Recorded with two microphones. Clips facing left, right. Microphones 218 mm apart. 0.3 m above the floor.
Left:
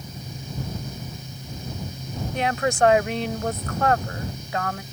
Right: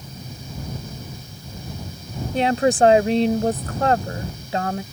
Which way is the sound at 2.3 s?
30° right (ahead or behind).